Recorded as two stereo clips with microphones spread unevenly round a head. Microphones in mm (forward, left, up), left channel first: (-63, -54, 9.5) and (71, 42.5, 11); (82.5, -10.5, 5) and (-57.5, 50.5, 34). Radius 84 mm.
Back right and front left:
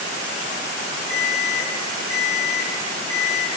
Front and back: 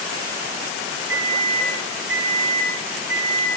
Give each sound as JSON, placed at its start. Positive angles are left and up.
{"t": 1.1, "sound": "an alarm", "azimuth_deg": 145, "distance_m": 6.0}